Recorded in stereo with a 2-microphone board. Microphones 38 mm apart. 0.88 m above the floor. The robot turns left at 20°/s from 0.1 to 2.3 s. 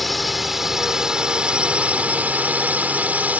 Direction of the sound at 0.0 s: Straight ahead.